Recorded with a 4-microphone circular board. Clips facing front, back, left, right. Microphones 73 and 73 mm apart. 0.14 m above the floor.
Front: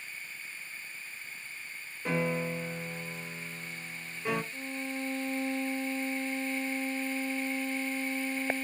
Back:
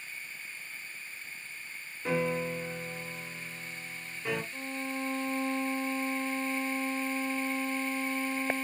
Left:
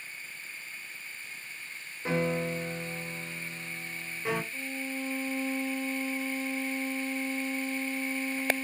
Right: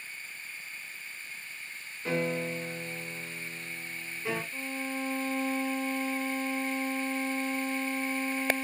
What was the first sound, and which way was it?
A piano, 85° left.